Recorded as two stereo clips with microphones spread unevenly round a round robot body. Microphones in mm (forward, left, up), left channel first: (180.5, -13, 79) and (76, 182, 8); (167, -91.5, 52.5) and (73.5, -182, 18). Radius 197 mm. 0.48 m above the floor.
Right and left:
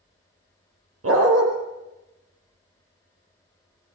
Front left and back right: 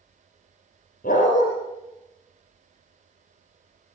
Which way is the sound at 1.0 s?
100° left.